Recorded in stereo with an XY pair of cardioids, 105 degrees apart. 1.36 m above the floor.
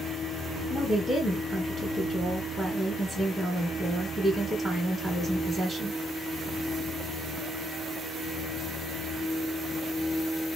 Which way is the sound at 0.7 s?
15° right.